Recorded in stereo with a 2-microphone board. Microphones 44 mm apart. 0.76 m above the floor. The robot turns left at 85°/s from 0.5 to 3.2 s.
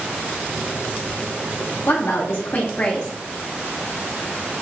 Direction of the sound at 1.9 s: 105° left.